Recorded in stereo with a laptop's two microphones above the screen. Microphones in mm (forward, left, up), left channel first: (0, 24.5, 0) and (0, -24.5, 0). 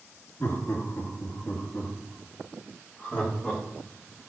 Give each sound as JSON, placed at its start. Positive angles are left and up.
{"t": 0.4, "sound": "laughter", "side_deg": 60, "distance_m": 1.9}